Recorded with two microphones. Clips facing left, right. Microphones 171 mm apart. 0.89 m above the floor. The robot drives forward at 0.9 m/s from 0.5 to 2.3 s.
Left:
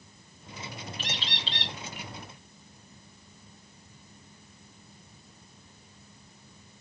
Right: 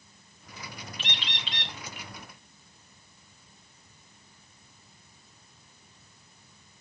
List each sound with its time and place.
1.0 s a bird: 40° left (ahead or behind), 1.7 m; by 1.7 s 30° left (ahead or behind), 2 m